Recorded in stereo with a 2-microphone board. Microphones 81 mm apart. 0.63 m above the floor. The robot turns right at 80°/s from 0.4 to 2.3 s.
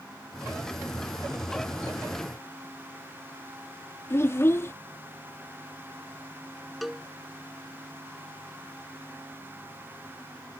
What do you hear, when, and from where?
4.1 s a child speaking: 30° left (ahead or behind)
6.8 s a cowbell: centre (ahead or behind)